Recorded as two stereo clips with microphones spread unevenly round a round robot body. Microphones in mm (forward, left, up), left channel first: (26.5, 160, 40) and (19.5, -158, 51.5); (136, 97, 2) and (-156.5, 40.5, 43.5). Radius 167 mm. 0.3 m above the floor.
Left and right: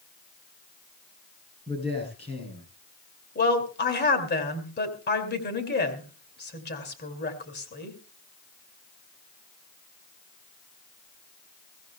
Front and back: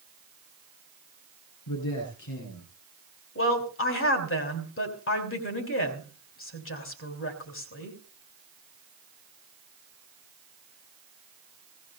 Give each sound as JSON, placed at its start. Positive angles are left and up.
{"t": 1.7, "sound": "a man speaking", "azimuth_deg": 20, "distance_m": 9.5}
{"t": 3.4, "sound": "a woman speaking", "azimuth_deg": 40, "distance_m": 3.0}